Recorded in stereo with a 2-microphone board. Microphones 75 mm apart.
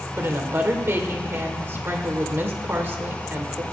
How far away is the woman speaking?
About 1.7 m.